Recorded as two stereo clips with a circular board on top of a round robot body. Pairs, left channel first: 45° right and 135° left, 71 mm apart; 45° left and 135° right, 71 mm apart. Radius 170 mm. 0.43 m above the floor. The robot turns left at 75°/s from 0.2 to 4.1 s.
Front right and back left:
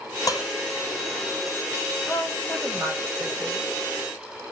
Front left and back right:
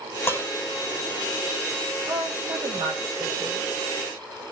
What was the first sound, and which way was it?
Dishes clattering, 10° right.